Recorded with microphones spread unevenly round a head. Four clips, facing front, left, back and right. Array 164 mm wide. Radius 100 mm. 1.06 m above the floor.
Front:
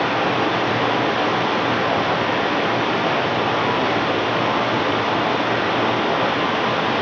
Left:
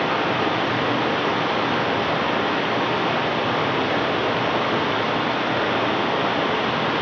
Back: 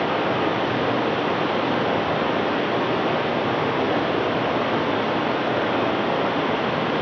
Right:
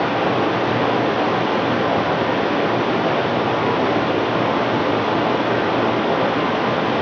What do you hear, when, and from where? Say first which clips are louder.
0.0 s running water: right 3 dB, front 2 dB; 105° right, 8 m